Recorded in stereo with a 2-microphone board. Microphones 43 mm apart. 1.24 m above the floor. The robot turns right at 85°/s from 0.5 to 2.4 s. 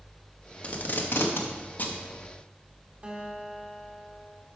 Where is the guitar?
35° right (ahead or behind), 1.5 m.